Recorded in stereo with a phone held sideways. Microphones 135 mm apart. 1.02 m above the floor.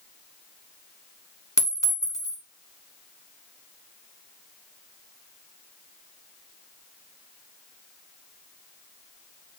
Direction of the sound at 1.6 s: 20° left (ahead or behind).